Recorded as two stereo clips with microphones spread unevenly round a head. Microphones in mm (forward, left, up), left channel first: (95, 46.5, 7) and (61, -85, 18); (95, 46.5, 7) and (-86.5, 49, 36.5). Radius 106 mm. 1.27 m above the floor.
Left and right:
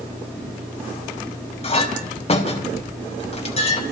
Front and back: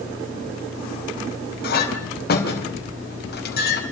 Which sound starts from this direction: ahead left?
A clink, at 1.6 s.